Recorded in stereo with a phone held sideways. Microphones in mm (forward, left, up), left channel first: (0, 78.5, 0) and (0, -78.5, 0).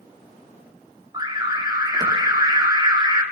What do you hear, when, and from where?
1.1 s an alarm: 25° right (ahead or behind), 4.5 m